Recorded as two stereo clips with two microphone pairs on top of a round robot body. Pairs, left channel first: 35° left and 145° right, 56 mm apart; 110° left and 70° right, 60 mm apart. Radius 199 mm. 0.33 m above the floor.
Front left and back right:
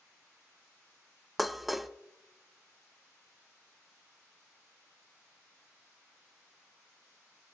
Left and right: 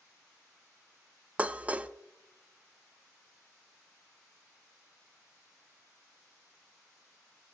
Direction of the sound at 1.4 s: 40° right.